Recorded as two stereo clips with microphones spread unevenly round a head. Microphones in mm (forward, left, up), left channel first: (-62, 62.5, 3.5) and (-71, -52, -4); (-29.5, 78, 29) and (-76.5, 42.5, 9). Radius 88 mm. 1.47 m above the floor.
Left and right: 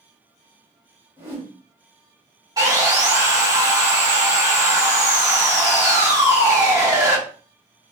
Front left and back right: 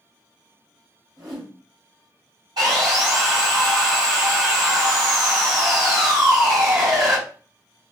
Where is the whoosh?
160° right, 1.8 m.